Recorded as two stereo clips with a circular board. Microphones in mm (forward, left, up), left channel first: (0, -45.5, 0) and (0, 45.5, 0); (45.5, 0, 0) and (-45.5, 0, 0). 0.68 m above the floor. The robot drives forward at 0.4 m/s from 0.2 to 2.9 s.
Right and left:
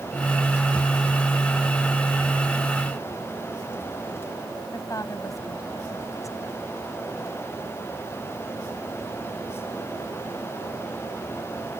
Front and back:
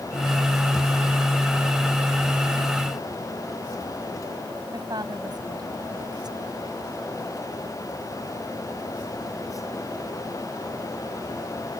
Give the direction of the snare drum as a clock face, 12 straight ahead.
I don't hear a snare drum.